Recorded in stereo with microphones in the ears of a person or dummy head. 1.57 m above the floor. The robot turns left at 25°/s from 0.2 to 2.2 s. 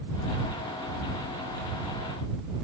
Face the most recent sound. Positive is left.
No sound to turn to.